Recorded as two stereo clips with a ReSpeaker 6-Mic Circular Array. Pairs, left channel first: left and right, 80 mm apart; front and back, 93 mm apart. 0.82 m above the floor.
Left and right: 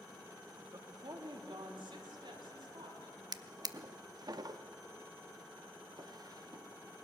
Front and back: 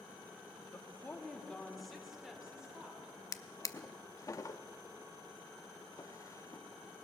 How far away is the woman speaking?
About 1.2 m.